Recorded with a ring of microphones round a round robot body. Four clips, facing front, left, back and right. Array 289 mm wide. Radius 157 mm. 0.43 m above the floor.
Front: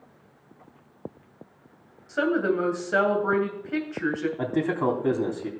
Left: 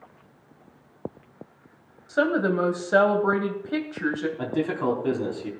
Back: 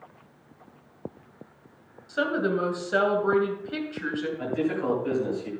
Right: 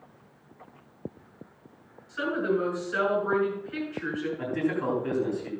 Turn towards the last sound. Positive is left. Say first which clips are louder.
# left 1 dB, front 1 dB
turn(degrees=20)